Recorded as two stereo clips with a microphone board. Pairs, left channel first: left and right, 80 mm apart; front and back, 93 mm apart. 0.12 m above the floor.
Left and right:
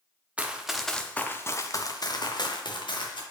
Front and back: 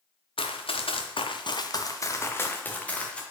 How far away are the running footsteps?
About 1.1 m.